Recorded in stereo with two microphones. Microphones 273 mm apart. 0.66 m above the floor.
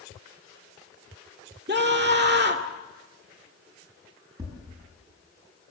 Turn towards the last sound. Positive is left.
turn(degrees=-15)  # may be behind; listen again after turning